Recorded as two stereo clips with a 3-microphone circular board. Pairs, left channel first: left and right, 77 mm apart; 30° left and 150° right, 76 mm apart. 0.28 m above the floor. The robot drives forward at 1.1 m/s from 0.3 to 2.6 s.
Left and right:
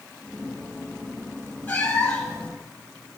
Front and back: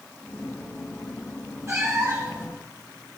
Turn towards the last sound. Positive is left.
turn(degrees=165)